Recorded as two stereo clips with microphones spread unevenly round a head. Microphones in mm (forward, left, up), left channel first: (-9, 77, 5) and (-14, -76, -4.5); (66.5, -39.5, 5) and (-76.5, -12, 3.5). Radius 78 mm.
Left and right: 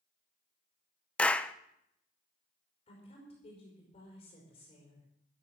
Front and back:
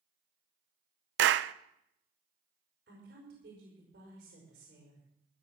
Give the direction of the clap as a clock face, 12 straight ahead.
6 o'clock.